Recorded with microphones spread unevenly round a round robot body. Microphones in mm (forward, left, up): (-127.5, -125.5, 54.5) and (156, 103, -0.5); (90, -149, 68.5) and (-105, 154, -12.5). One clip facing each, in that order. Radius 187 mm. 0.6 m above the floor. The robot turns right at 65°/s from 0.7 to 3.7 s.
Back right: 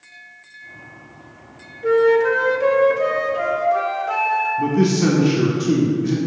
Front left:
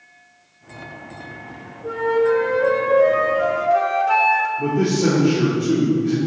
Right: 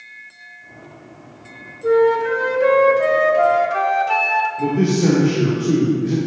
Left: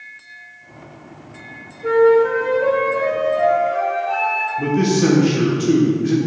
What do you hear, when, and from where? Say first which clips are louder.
1.8 s a flute: back right 4 dB, left 2 dB; 160° right, 1.0 m; by 4.5 s 35° right, 1.0 m
4.6 s a man speaking: back right 1 dB, left 1 dB; 165° left, 1.5 m